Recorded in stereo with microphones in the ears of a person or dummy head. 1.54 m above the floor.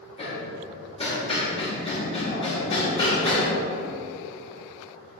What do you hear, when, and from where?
0.2 s hammering: 25° left (ahead or behind), 2 m